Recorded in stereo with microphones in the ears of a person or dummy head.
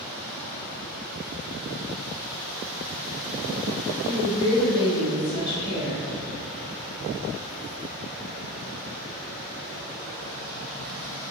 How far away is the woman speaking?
About 1.5 m.